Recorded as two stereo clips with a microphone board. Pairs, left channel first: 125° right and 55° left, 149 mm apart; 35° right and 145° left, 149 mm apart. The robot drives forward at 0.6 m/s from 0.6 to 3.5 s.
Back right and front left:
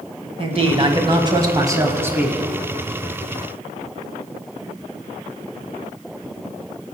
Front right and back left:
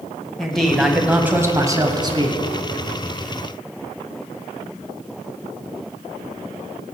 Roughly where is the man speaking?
Ahead left.